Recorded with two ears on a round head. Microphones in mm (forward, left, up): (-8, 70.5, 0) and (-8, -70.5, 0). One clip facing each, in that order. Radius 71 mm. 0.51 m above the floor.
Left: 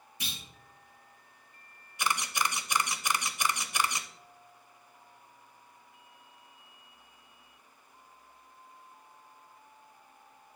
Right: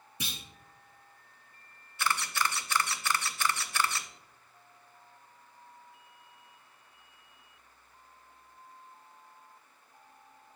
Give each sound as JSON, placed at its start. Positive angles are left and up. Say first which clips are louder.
{"t": 0.2, "sound": "a clunk", "louder": "right 3 dB", "side_deg": -85, "distance_m": 1.5}
{"t": 2.0, "sound": "a camera shutter", "louder": "even", "side_deg": 15, "distance_m": 0.5}